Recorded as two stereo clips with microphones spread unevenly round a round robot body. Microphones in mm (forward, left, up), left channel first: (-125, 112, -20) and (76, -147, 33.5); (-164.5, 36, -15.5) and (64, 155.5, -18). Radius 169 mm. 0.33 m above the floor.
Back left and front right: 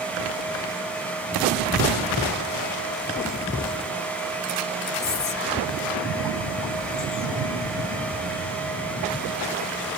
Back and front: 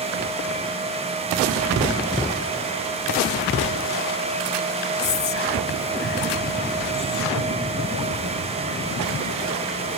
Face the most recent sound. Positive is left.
turn(degrees=175)